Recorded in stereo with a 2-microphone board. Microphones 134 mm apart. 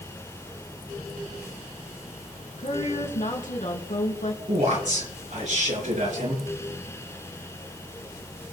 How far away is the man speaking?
About 5 m.